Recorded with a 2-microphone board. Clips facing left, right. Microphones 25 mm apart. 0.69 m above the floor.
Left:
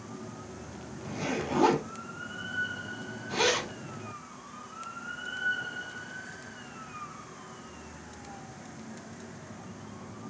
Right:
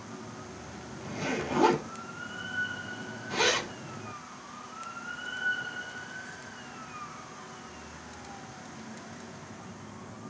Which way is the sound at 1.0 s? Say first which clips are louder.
Even; 5° right (ahead or behind).